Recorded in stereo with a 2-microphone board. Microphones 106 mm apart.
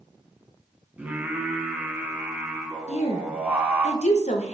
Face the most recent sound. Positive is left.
turn(degrees=80)